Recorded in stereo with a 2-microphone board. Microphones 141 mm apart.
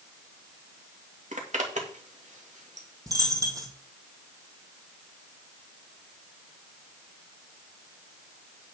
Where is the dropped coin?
25° right (ahead or behind), 2.5 m.